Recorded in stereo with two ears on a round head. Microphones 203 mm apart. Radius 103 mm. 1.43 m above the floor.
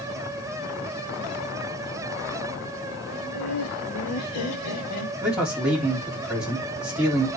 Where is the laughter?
60° left (ahead or behind), 2.5 m; by 5.1 s 85° left, 2.5 m.